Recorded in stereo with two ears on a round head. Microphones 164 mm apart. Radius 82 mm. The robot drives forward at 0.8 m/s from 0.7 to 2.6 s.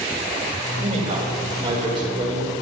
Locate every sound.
0.8 s a man speaking: 35° right (ahead or behind), 3 m; by 2.5 s 25° right (ahead or behind), 4 m